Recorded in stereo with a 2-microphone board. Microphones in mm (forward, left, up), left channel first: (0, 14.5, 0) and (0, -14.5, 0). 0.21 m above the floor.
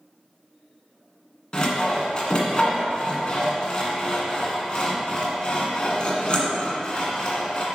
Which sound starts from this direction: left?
Sawing, at 1.5 s.